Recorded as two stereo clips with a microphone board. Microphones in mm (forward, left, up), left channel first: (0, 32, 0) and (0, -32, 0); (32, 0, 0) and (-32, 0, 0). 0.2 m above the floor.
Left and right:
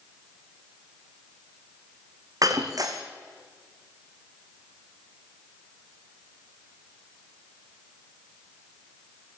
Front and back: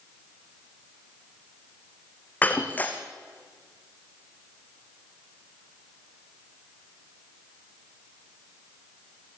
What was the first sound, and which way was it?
Breaking glass, 65° right.